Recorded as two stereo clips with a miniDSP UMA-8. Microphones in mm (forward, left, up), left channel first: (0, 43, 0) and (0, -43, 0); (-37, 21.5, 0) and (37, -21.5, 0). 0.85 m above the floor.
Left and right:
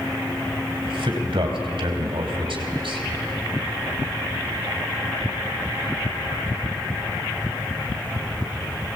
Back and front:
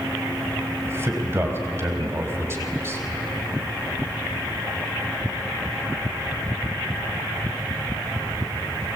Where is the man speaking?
90° right, 4 m.